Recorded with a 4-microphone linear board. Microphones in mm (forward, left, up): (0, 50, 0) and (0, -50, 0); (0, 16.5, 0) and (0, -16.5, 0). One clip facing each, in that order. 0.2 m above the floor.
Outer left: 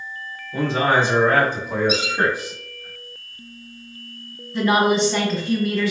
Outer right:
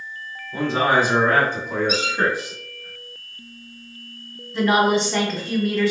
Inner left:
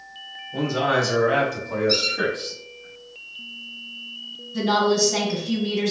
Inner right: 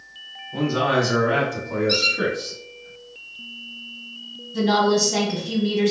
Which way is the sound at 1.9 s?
40° right (ahead or behind).